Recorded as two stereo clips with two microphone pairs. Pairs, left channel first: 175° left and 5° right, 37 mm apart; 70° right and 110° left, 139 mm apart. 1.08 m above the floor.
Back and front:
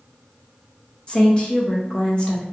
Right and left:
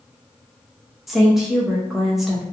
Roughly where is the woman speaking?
Behind.